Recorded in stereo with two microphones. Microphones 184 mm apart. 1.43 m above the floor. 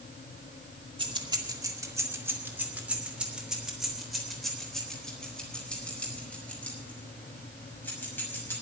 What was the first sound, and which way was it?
Keys jangling, 25° right (ahead or behind).